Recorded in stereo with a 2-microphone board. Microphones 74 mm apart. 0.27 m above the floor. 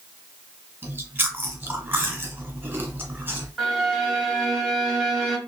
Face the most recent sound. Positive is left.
turn(degrees=5)  # may be behind; listen again after turning